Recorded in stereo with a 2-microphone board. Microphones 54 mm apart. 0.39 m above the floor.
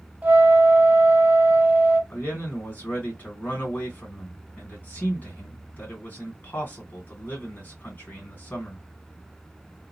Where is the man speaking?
35° left (ahead or behind), 1.9 m.